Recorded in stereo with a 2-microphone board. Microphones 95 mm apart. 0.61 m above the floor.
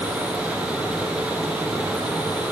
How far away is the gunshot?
I don't hear a gunshot.